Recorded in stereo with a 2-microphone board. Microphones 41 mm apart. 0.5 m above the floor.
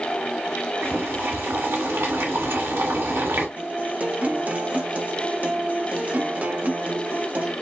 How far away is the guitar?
About 0.7 m.